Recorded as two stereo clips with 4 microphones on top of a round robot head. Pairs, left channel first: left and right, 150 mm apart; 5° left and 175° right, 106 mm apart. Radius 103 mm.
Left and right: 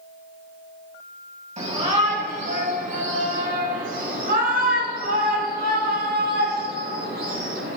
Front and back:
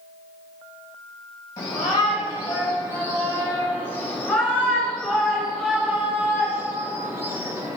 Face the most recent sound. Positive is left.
turn(degrees=-110)